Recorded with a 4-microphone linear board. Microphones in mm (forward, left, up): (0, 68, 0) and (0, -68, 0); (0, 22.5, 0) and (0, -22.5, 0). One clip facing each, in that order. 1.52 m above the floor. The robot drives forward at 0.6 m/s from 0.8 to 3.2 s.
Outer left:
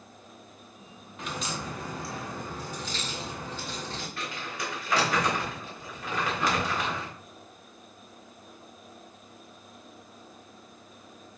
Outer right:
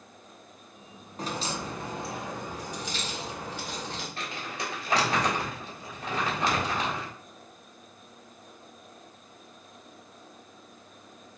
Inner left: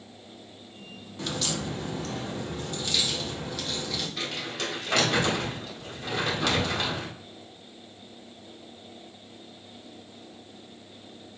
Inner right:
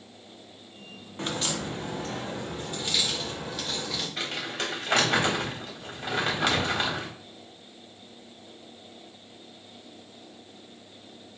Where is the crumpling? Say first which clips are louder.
Even, inner right 1 dB; 30° right (ahead or behind), 1.6 m.